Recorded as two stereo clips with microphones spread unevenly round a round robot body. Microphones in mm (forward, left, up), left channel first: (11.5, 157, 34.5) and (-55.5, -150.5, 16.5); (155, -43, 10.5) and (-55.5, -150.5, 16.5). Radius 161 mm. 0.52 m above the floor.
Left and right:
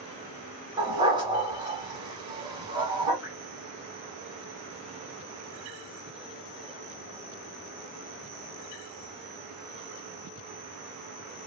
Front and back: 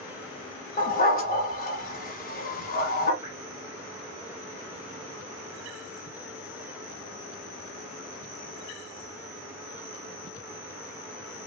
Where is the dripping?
55° left, 1.4 m.